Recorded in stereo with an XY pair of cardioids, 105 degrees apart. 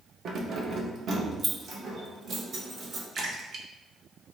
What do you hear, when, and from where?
0.2 s keys jangling: 60° right, 0.8 m; by 3.0 s 55° right, 2.5 m
3.1 s a splash: 55° right, 1.1 m